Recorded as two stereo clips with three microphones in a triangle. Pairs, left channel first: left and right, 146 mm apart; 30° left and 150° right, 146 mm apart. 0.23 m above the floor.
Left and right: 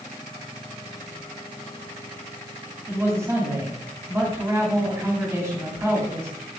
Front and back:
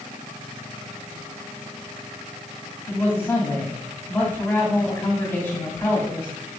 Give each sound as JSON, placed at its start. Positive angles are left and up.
{"t": 2.9, "sound": "a man speaking", "azimuth_deg": -35, "distance_m": 2.0}